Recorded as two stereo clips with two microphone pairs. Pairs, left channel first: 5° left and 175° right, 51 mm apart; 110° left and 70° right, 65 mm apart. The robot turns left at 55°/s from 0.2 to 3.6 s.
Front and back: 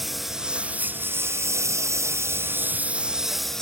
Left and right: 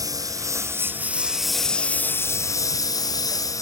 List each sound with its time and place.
0.0 s a lawn mower: 85° right; by 3.6 s 85° left